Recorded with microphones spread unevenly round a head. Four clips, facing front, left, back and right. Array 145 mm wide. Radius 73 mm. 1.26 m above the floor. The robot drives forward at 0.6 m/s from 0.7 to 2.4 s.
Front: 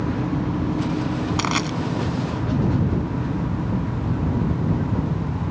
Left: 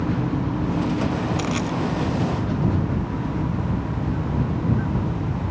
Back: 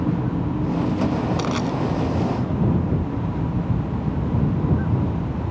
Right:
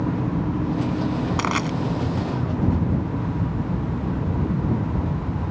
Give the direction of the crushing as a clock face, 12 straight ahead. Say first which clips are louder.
Right 1 dB, even; 1 o'clock.